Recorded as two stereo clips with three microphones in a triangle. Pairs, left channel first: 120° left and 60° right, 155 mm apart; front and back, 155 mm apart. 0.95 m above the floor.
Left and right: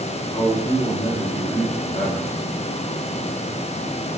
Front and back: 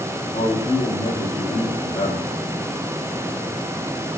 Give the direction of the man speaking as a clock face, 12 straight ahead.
10 o'clock.